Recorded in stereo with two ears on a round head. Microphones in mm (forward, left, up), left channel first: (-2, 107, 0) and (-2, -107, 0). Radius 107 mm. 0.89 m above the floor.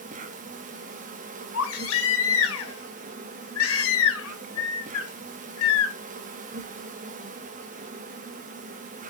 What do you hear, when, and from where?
0.0 s an insect: 35° right (ahead or behind), 1.1 m
1.5 s a baby crying: 65° left (ahead or behind), 1.7 m